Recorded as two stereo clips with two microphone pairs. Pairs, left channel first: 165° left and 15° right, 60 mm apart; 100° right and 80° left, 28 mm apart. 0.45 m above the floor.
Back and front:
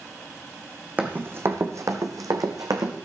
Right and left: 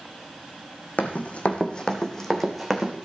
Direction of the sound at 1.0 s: 75° right.